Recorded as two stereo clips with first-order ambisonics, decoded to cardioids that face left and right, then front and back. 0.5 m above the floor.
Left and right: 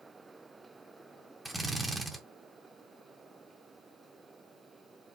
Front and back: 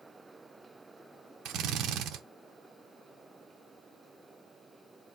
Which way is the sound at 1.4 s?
170° right.